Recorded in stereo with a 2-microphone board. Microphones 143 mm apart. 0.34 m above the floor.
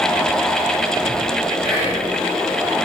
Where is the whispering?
25° right (ahead or behind), 1.8 m.